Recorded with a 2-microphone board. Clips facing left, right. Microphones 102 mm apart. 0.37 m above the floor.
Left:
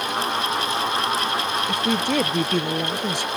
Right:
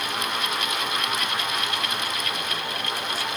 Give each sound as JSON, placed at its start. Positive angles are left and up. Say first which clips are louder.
{"t": 1.7, "sound": "a woman speaking", "louder": "left 7 dB", "side_deg": 80}